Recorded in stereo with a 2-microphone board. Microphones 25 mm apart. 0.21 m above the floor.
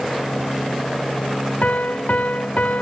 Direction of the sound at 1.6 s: 65° left (ahead or behind).